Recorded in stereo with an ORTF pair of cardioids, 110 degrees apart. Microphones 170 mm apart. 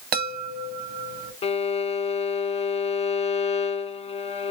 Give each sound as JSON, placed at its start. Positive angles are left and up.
{"t": 0.1, "sound": "a chime", "azimuth_deg": -65, "distance_m": 1.1}
{"t": 1.4, "sound": "a violin", "azimuth_deg": 35, "distance_m": 0.6}